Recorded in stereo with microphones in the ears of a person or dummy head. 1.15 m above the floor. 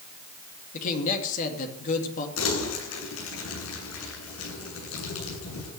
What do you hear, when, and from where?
0.7 s a man speaking: 40° left (ahead or behind), 2.5 m
2.4 s crumpling: 85° left, 8.5 m